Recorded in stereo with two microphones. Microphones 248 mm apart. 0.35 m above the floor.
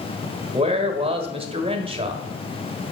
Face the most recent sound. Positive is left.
turn(degrees=-20)  # may be behind; listen again after turning